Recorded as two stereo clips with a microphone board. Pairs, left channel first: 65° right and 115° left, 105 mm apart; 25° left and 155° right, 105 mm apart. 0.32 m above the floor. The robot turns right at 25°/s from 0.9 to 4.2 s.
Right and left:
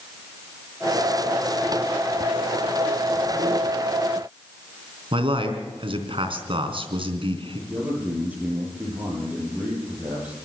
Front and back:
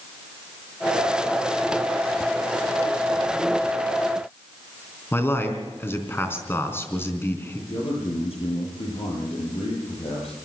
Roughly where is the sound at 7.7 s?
Ahead left.